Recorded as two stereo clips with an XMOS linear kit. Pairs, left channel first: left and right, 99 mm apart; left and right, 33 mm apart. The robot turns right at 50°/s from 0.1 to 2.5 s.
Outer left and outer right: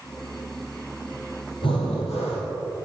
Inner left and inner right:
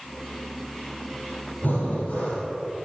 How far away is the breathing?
About 2.5 m.